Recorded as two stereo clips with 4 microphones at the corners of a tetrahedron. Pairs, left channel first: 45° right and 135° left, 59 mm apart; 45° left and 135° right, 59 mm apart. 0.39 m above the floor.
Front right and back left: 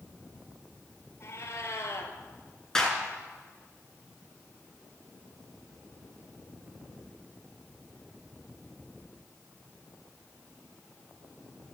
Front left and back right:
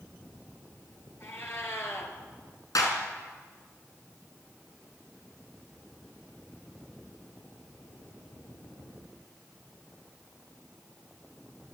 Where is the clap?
35° left, 5 m.